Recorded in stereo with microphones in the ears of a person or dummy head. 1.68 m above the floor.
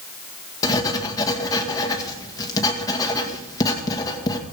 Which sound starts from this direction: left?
Writing, at 0.6 s.